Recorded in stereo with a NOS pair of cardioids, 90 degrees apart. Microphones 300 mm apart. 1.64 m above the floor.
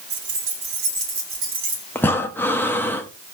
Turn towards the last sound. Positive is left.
turn(degrees=5)